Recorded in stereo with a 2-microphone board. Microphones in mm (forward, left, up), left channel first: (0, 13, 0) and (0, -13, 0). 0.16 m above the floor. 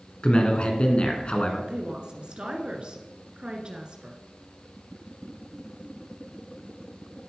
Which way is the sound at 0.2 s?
45° left (ahead or behind).